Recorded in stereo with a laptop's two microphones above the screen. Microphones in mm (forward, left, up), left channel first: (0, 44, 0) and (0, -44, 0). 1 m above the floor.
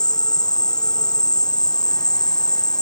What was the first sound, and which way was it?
An insect, 50° left (ahead or behind).